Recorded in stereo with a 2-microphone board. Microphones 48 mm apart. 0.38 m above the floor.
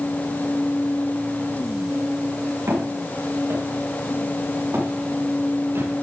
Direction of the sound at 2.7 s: 85° right.